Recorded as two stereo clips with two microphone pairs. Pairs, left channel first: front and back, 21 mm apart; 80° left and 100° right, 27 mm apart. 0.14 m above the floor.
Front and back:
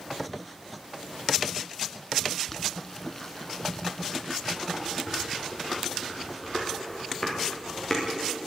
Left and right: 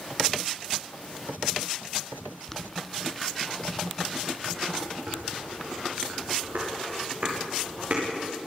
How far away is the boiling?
About 1.0 m.